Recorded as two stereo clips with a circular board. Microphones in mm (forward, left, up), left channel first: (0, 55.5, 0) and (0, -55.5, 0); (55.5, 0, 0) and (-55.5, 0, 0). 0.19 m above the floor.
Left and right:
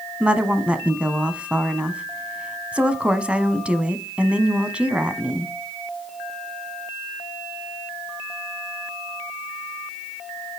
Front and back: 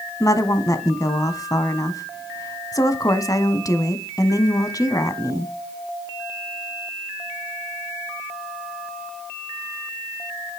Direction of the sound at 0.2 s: 20° right.